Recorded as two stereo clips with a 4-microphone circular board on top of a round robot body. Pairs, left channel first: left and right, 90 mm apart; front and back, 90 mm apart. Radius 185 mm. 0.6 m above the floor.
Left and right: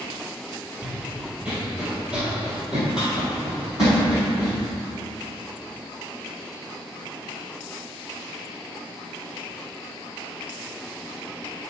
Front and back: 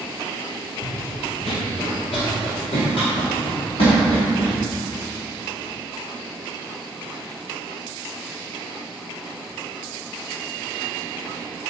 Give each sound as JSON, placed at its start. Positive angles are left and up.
{"t": 0.8, "sound": "running footsteps", "azimuth_deg": -15, "distance_m": 0.8}